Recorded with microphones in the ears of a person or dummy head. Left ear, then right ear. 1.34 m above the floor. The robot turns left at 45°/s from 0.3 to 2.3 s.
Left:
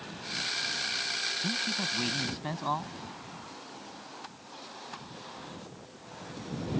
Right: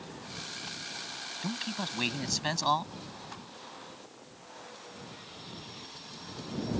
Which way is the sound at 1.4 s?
35° right.